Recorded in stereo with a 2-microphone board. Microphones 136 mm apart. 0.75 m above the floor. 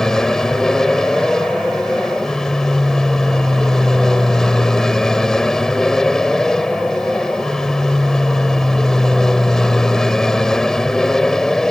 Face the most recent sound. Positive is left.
turn(degrees=5)  # may be behind; listen again after turning